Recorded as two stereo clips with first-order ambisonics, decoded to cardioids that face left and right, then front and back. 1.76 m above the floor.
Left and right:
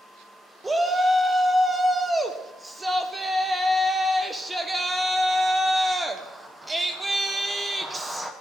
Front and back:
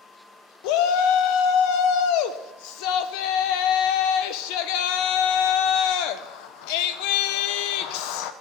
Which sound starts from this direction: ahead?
A shout, at 0.6 s.